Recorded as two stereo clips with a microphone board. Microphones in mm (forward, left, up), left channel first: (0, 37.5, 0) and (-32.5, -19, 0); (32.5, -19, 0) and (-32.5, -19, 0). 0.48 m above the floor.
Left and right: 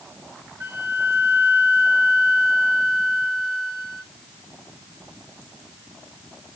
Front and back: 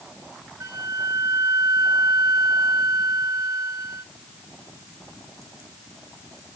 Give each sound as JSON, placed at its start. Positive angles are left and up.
{"t": 0.6, "sound": "a flute", "azimuth_deg": -150, "distance_m": 1.6}